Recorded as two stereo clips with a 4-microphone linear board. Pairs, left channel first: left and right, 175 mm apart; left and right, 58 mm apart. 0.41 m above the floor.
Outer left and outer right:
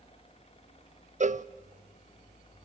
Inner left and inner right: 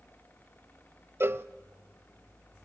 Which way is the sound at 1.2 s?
50° right (ahead or behind).